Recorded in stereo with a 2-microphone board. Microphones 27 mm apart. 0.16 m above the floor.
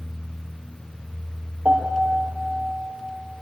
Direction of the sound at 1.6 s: 65° right (ahead or behind).